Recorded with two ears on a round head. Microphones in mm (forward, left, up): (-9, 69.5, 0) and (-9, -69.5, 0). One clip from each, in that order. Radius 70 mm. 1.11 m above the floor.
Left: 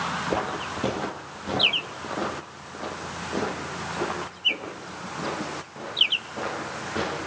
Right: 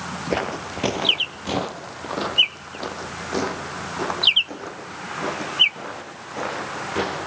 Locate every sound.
0.3 s footsteps: 40° right (ahead or behind), 1.4 m; by 7.2 s 70° right (ahead or behind), 5.5 m